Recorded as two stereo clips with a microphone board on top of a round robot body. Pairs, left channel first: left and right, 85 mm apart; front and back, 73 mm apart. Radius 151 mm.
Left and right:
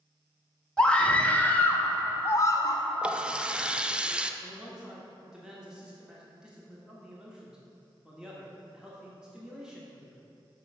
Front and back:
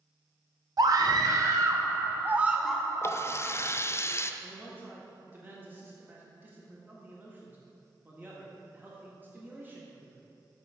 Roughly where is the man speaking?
Behind.